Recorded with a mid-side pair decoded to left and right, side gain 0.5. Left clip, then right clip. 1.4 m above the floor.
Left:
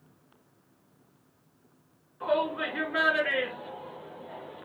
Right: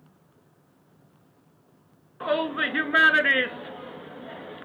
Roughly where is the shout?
Ahead right.